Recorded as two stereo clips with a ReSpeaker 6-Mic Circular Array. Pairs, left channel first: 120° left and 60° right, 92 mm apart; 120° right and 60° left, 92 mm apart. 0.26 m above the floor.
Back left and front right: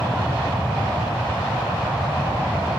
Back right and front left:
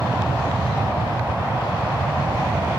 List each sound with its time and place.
0.0 s an aircraft: 15° left